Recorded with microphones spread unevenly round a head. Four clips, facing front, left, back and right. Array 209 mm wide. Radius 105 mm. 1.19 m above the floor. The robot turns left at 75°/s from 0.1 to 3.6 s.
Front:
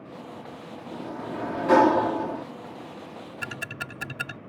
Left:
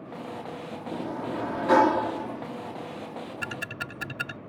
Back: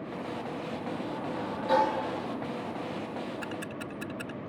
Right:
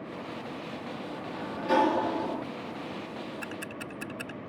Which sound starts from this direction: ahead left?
Ticking, at 3.4 s.